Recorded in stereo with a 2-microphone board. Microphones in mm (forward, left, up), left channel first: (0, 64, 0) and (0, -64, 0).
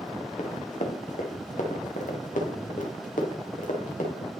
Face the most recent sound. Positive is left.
turn(degrees=85)